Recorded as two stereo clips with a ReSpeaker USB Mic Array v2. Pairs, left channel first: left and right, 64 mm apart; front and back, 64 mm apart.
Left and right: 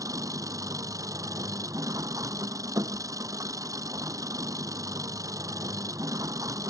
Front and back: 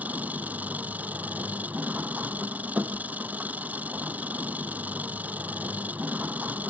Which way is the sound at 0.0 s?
115° right.